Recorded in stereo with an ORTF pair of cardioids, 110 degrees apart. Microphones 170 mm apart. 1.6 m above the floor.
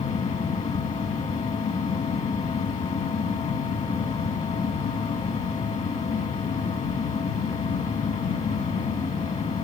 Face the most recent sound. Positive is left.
turn(degrees=45)